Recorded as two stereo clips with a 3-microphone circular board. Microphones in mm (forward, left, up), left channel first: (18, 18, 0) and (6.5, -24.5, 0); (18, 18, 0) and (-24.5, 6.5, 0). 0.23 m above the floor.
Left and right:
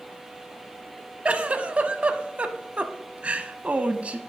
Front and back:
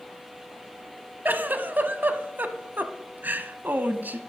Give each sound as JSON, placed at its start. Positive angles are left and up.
{"t": 1.2, "sound": "a giggle", "azimuth_deg": -150, "distance_m": 0.6}